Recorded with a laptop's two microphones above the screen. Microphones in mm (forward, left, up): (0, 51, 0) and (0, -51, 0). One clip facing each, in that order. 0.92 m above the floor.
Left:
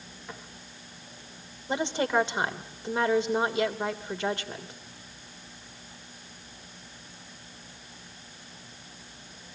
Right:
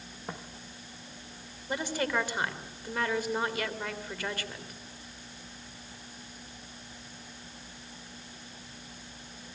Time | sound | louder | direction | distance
0.3 | footsteps | right 3 dB | 40° right (ahead or behind) | 3.5 m
1.7 | a woman speaking | left 4 dB | 25° left (ahead or behind) | 2.5 m